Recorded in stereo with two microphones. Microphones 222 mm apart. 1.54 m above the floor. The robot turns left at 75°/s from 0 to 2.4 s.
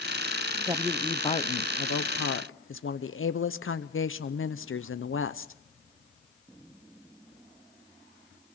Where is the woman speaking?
160° right, 0.8 m; by 5.5 s 70° left, 0.8 m.